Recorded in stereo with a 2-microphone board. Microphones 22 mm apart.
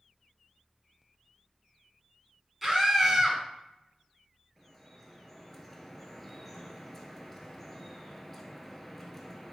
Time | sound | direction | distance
2.6 | a scream | 5° right (ahead or behind) | 2.5 m
4.6 | dripping | 10° left (ahead or behind) | 1.1 m